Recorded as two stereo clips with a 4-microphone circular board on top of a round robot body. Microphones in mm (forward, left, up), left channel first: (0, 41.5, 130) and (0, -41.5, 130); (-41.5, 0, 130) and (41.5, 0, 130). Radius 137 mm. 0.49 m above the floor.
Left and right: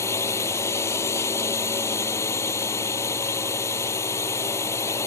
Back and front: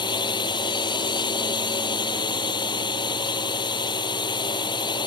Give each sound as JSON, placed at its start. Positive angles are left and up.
{"t": 0.0, "sound": "a drone", "azimuth_deg": 145}